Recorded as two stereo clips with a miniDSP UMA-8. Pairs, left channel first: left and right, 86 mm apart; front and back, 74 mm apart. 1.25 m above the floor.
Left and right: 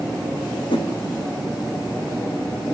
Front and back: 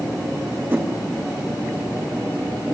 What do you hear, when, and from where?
0.7 s a whoosh: 115° left, 3.5 m